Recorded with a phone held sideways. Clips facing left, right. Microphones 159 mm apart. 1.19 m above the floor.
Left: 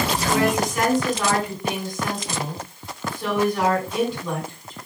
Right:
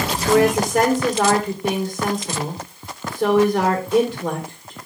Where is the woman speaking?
75° right (ahead or behind), 4 m.